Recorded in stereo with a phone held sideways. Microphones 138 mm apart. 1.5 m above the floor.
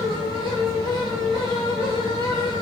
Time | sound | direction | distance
0.0 | a fan | 40° right (ahead or behind) | 1.8 m